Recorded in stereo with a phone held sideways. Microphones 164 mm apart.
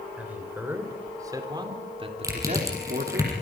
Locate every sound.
0.2 s a man speaking: 10° right (ahead or behind), 4.5 m; by 3.2 s 65° right (ahead or behind), 2.5 m
2.2 s crushing: 20° right (ahead or behind), 6.5 m